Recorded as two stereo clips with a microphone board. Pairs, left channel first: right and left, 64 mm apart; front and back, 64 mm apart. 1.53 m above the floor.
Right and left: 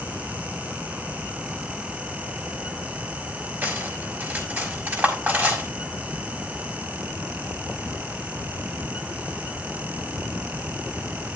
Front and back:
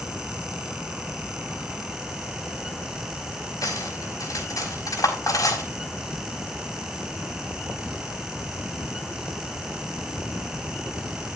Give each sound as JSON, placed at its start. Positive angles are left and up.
{"t": 3.6, "sound": "cutlery clinking", "azimuth_deg": 25, "distance_m": 5.5}